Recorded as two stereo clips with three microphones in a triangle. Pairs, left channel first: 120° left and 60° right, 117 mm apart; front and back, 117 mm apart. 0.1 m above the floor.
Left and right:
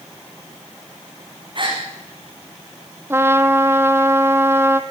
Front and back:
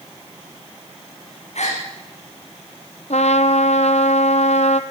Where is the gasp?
15° right, 5.5 m.